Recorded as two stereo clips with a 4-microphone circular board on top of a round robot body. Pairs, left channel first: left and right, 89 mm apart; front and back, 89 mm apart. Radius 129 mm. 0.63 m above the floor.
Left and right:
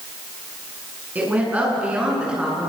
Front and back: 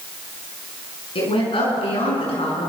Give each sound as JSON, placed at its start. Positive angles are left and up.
{"t": 1.1, "sound": "a woman speaking", "azimuth_deg": -15, "distance_m": 9.0}